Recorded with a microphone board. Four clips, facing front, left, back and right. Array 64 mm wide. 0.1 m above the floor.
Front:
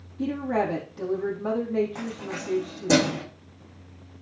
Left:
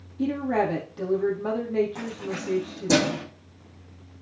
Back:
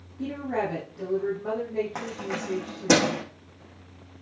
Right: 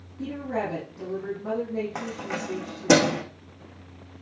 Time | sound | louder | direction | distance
0.2 | a woman speaking | left 5 dB, front 3 dB | 75° left | 4.5 m
1.9 | keys jangling | right 1 dB, back 1 dB | 135° right | 4 m